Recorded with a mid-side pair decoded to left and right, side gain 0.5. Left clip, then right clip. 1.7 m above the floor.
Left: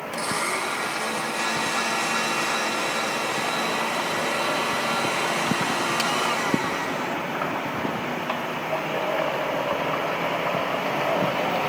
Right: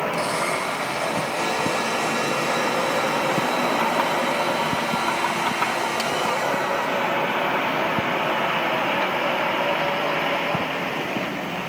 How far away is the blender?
About 3.5 m.